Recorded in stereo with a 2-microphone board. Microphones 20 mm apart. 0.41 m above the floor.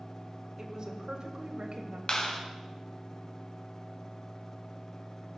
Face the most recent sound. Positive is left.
turn(degrees=45)  # may be behind; listen again after turning